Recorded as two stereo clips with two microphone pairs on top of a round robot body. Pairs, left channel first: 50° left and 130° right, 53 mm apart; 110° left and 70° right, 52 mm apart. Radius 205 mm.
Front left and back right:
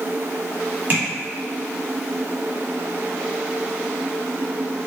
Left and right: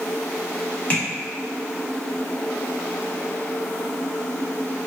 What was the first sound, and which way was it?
Tapping, 175° left.